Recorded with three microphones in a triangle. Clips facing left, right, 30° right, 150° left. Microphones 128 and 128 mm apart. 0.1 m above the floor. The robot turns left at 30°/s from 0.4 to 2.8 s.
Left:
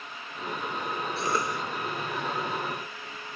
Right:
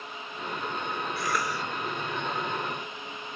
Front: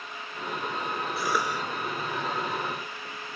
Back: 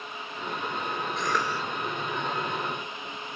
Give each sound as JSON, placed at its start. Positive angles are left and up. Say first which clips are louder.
{"t": 1.2, "sound": "a cough", "louder": "left 2 dB, front 1 dB", "azimuth_deg": 50, "distance_m": 1.3}